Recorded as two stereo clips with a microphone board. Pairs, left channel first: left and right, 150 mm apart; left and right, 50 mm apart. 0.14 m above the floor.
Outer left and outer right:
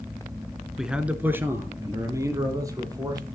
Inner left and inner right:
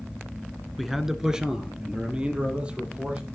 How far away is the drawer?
I don't hear a drawer.